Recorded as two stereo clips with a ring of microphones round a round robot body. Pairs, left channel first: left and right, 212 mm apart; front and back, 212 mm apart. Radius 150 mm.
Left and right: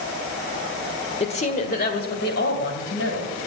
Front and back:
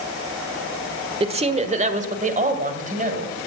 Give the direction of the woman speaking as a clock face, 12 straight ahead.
7 o'clock.